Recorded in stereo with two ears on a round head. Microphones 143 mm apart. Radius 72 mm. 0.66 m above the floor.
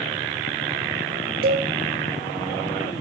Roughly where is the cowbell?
Right.